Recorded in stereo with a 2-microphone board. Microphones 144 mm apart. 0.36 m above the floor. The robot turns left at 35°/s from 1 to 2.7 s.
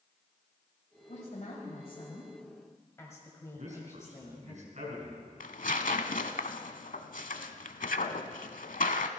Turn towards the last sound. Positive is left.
turn(degrees=70)  # may be behind; listen again after turning